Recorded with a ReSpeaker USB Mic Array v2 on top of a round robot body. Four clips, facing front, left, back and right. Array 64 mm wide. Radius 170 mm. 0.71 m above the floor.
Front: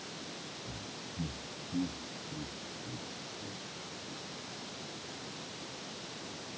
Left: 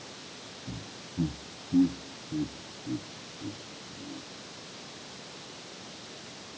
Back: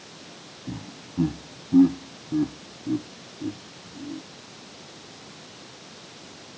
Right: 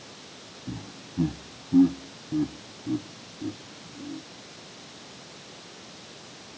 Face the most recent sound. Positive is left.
turn(degrees=-145)